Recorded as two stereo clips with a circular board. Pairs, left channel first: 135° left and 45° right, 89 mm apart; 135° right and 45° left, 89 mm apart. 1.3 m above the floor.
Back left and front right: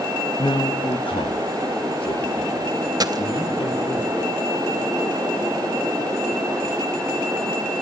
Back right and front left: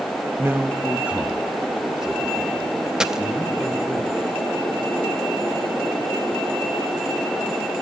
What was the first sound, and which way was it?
A man speaking, 105° left.